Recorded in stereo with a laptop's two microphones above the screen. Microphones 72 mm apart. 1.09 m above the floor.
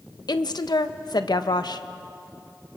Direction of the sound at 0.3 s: 70° left (ahead or behind).